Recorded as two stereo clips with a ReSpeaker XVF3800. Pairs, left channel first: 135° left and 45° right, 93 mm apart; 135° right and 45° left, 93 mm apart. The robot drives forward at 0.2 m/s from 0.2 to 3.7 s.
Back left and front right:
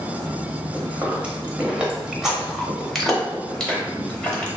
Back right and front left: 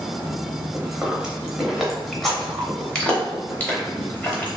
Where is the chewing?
15° right, 0.8 m; by 4.5 s 165° right, 0.8 m.